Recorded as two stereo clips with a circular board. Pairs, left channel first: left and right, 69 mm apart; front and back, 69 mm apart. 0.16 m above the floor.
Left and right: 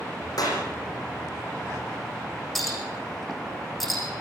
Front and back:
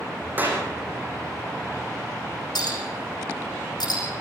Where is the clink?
Straight ahead, 5.5 m.